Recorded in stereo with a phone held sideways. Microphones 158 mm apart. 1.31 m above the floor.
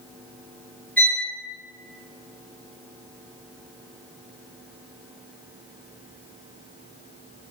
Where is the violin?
10° left (ahead or behind), 1.0 m.